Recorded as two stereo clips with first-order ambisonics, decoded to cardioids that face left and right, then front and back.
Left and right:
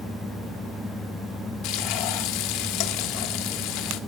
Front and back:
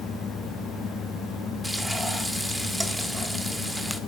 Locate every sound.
1.6 s frying: 95° left, 1.2 m